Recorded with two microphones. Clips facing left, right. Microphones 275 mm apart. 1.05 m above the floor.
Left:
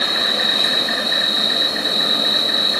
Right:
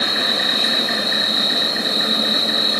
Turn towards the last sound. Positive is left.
turn(degrees=50)  # may be behind; listen again after turning